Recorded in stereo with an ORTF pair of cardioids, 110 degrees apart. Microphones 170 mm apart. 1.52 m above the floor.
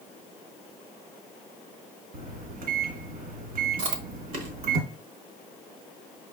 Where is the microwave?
55° right, 1.5 m.